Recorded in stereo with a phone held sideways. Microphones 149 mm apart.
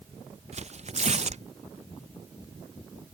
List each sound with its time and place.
0.5 s tearing paper: 50° right (ahead or behind)